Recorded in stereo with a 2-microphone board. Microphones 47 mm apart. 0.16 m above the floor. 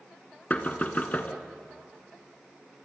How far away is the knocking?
About 1.9 m.